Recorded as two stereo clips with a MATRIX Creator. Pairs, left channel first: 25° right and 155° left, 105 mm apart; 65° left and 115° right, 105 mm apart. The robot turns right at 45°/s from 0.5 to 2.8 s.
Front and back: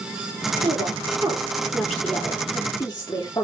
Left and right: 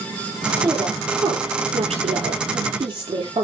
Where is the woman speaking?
Straight behind, 9 m; by 3.5 s 80° right, 9 m.